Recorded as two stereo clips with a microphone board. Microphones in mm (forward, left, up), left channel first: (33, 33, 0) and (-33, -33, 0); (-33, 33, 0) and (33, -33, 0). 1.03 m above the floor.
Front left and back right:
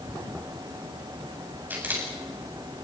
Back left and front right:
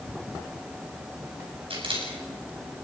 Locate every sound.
1.7 s a camera shutter: 65° right, 7.5 m